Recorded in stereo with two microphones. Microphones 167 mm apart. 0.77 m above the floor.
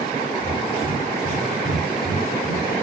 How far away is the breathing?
About 3.5 m.